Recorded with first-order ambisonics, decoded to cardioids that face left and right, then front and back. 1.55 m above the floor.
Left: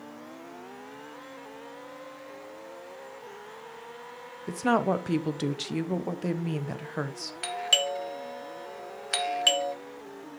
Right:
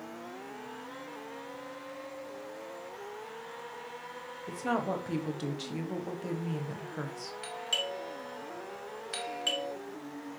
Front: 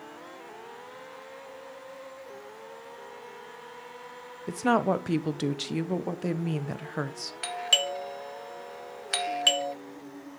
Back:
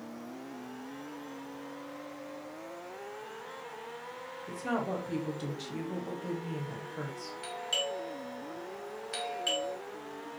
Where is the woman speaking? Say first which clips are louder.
Left 7 dB, front 9 dB; 35° left, 0.6 m.